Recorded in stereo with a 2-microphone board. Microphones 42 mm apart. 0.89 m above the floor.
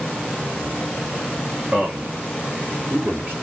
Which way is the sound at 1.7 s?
35° right (ahead or behind).